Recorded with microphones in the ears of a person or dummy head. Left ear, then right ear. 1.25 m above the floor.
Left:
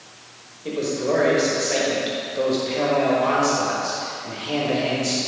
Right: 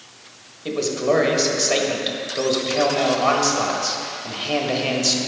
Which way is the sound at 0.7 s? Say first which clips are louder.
Right 3 dB; 30° right (ahead or behind).